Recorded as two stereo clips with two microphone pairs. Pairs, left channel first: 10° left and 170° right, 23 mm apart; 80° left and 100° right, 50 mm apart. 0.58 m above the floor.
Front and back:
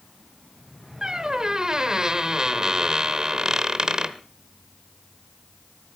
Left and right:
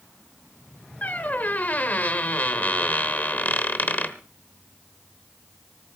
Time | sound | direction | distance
1.0 | a squeak | 140° left | 1.2 m